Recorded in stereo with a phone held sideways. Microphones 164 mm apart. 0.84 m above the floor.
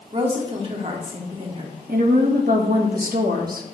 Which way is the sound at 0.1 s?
40° right (ahead or behind).